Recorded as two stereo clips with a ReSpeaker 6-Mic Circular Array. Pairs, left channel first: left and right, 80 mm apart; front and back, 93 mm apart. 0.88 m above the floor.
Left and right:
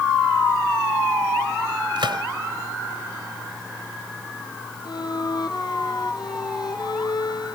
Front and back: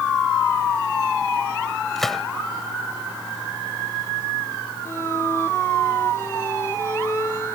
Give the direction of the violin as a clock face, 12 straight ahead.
10 o'clock.